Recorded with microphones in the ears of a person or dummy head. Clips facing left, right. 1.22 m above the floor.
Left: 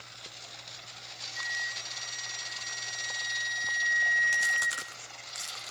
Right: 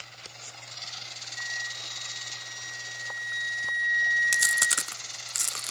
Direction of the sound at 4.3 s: 60° right (ahead or behind).